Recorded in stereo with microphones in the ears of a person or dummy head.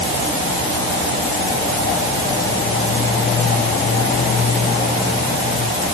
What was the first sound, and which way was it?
Only background noise.